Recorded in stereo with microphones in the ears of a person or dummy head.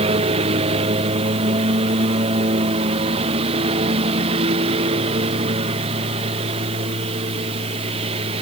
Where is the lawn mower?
30° right (ahead or behind).